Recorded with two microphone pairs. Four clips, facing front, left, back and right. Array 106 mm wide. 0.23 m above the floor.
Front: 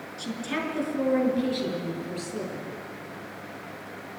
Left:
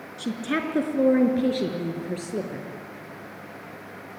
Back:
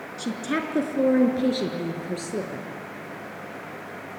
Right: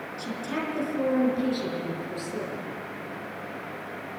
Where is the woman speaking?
130° left, 4 m; by 2.7 s 135° left, 5.5 m.